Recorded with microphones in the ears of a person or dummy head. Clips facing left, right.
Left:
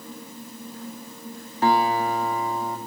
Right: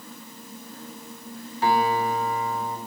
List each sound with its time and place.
1.6 s a guitar: 40° left (ahead or behind), 2.5 m